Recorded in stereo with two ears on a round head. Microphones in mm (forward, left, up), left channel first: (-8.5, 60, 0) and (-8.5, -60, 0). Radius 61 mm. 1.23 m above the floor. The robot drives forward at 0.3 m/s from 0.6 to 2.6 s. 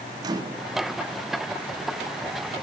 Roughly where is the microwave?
Right.